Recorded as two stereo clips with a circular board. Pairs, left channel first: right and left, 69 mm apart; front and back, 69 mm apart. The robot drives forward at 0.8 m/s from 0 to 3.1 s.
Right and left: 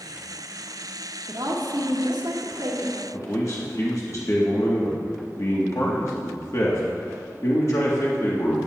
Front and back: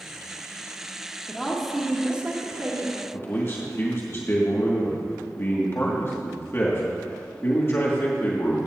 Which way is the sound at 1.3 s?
75° left.